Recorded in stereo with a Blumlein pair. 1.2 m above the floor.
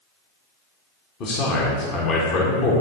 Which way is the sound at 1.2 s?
35° left.